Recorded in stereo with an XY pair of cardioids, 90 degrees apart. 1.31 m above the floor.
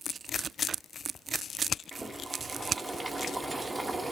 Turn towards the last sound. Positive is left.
turn(degrees=-25)